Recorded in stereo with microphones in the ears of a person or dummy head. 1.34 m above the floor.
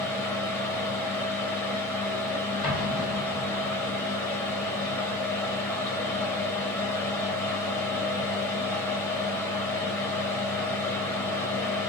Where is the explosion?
70° left (ahead or behind), 1.5 m.